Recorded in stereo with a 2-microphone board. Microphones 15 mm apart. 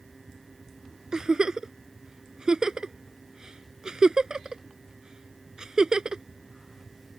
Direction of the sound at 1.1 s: 55° right (ahead or behind).